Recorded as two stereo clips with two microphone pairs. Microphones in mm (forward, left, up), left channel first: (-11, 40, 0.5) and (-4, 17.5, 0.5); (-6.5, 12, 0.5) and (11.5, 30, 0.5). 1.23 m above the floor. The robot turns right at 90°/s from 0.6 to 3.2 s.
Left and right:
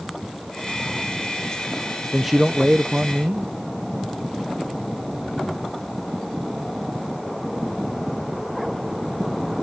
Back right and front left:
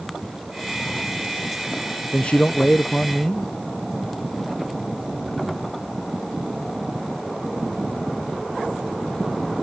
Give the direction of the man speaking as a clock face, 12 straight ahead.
6 o'clock.